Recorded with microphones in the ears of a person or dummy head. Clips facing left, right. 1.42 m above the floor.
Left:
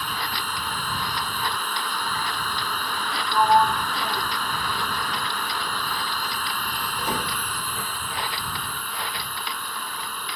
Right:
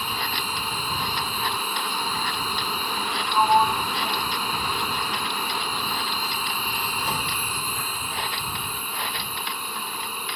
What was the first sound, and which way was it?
A machine running, 10° right (ahead or behind).